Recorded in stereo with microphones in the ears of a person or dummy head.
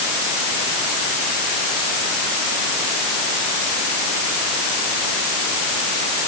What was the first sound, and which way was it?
Only background noise.